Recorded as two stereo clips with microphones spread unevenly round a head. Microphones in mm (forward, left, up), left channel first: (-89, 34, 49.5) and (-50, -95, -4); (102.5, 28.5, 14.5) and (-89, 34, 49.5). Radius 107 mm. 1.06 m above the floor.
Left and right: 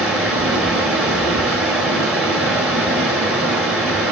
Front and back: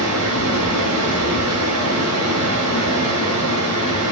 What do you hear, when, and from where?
0.0 s running water: 165° right, 3.5 m